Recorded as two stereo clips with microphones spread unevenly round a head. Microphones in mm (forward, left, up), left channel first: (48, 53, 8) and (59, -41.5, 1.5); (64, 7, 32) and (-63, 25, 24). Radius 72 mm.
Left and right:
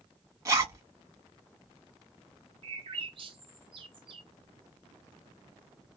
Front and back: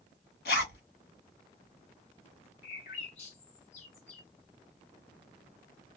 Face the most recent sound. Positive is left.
turn(degrees=-50)